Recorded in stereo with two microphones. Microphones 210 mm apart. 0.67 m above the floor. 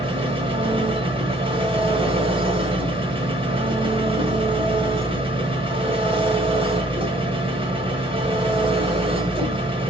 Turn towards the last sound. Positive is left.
turn(degrees=-25)  # may be behind; listen again after turning